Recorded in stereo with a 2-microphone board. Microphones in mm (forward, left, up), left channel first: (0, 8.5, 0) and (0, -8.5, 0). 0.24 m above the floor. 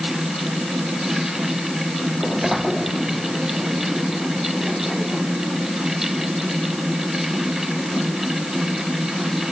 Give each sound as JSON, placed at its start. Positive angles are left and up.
{"t": 2.1, "sound": "a sliding door", "side_deg": -15}